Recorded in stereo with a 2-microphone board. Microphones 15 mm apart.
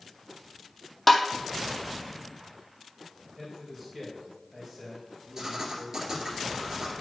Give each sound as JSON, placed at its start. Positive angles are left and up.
{"t": 1.1, "sound": "tapping", "side_deg": 10, "distance_m": 0.8}
{"t": 3.4, "sound": "a man speaking", "side_deg": -5, "distance_m": 3.0}
{"t": 5.4, "sound": "writing", "side_deg": -35, "distance_m": 2.0}